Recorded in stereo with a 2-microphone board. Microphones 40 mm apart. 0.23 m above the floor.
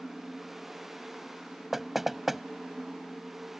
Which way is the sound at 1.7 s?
5° right (ahead or behind).